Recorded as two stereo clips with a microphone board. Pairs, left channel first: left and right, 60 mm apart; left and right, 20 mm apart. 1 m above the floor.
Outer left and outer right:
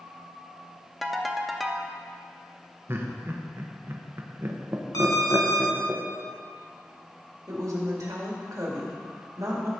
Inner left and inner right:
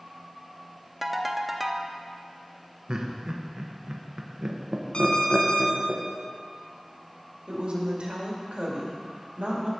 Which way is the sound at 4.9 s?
80° left.